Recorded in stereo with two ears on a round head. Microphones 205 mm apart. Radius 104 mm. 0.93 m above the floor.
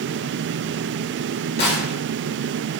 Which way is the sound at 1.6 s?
50° left (ahead or behind).